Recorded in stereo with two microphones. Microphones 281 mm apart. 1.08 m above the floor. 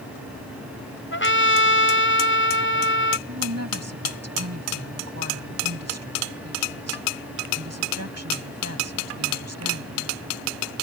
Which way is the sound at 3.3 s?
65° right (ahead or behind).